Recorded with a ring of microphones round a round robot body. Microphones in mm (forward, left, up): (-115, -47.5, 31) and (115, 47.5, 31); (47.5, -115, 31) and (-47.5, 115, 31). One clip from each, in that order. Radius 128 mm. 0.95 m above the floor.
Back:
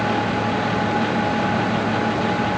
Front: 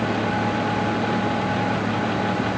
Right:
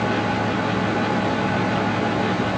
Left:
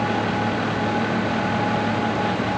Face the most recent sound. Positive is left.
No sound to turn to.